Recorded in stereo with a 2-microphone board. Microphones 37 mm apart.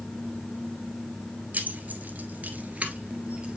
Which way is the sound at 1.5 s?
45° right (ahead or behind).